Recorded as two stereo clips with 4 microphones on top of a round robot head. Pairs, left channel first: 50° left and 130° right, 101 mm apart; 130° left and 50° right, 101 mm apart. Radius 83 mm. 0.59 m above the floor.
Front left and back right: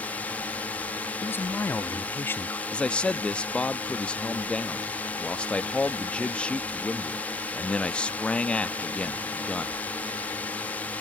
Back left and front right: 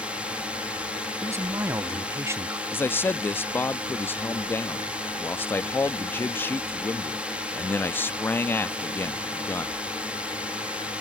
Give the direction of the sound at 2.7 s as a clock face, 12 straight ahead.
8 o'clock.